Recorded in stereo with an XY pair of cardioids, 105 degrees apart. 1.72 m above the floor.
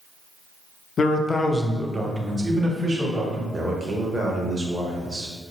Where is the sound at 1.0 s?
45° left, 0.6 m; by 3.4 s 40° right, 1.5 m.